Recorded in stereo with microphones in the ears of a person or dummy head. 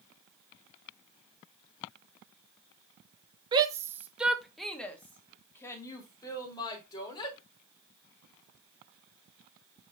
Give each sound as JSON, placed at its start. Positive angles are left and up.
{"t": 3.5, "sound": "a shout", "side_deg": -20, "distance_m": 1.2}